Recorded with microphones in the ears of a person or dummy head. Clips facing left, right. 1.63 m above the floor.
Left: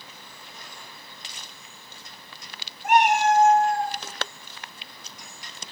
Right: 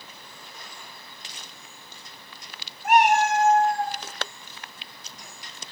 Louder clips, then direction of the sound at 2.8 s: Even; 25° left (ahead or behind).